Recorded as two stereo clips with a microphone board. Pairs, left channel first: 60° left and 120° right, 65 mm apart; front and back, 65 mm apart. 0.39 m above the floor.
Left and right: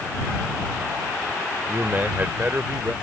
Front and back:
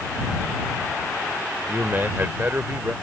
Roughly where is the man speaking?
Behind right.